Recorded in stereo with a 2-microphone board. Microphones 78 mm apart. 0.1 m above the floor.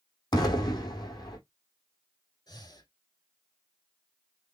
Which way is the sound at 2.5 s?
65° left (ahead or behind).